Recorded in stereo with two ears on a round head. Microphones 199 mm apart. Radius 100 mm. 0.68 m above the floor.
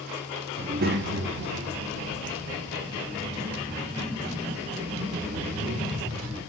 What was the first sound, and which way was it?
A child speaking, 25° right (ahead or behind).